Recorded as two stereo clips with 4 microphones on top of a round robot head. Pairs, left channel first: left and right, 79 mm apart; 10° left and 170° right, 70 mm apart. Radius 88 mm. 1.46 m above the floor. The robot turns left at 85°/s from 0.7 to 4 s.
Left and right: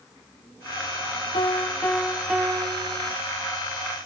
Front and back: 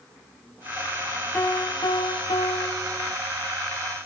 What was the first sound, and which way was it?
A piano, 75° left.